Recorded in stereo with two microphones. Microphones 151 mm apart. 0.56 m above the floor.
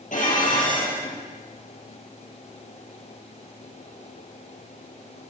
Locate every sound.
0.1 s dishes clattering: 60° left (ahead or behind), 8.5 m